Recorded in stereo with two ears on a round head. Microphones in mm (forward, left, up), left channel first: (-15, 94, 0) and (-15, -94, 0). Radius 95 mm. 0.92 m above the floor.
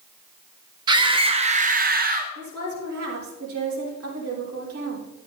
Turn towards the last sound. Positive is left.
turn(degrees=-75)  # may be behind; listen again after turning